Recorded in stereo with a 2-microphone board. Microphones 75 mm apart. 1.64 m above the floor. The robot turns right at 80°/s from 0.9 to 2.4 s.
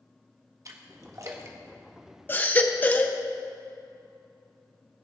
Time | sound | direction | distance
0.7 | a splash | 45° right (ahead or behind) | 1.2 m
2.3 | a baby crying | 30° left (ahead or behind) | 0.7 m